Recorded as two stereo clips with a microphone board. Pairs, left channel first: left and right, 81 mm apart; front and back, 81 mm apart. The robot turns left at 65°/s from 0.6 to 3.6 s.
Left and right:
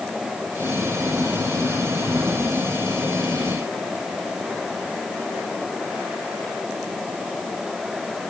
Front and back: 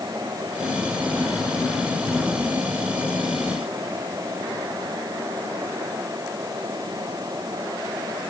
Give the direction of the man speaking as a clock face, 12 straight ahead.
I don't hear a man speaking.